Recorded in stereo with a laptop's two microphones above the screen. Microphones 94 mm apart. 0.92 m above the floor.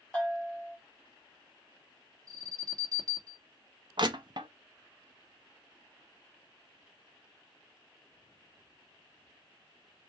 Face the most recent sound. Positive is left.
turn(degrees=-55)  # may be behind; listen again after turning